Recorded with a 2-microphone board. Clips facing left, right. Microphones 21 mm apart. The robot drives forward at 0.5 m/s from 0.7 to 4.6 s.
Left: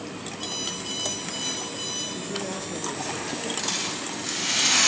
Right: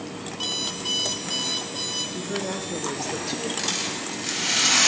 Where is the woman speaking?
35° right (ahead or behind), 1.9 m; by 3.5 s 50° right (ahead or behind), 1.4 m.